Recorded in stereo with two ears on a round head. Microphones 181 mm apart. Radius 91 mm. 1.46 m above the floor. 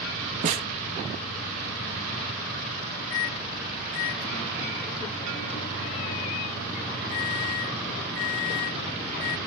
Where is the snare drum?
40° right (ahead or behind).